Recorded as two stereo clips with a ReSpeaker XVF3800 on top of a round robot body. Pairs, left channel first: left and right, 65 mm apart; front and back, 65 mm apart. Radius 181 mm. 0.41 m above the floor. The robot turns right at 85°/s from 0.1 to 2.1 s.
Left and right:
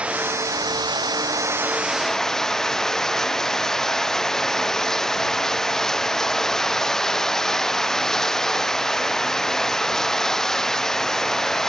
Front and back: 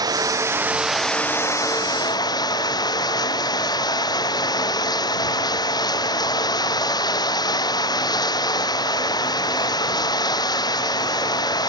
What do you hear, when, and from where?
0.0 s running water: 165° right; by 11.7 s 5° left